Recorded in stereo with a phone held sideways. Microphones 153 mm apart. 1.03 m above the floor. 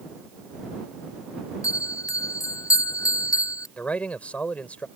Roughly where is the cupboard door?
No cupboard door in this recording.